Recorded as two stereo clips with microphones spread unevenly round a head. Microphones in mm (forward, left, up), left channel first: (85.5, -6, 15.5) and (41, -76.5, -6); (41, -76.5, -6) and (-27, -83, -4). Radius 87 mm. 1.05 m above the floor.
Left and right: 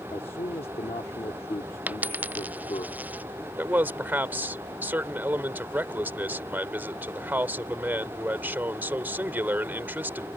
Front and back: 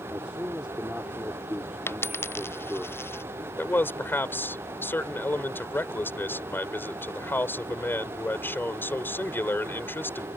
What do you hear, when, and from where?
0.1 s a man speaking: 105° left
1.9 s a dropped coin: 50° right
3.6 s a man speaking: 55° right